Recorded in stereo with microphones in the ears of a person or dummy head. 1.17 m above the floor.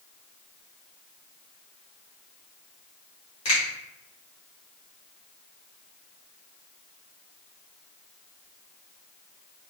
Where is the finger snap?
30° left (ahead or behind), 1.2 m.